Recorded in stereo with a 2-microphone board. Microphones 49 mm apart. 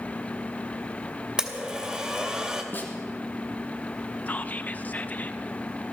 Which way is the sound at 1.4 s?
20° right (ahead or behind).